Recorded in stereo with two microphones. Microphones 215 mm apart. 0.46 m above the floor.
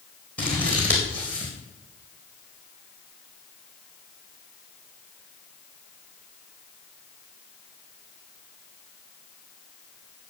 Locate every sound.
0.4 s scissors: 5° left (ahead or behind), 4.5 m